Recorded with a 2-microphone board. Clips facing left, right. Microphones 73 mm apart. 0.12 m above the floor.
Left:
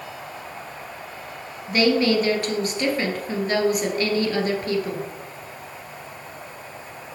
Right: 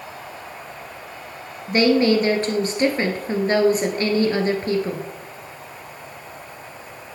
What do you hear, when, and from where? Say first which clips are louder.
1.7 s a woman speaking: right 3 dB; 30° right (ahead or behind), 1.9 m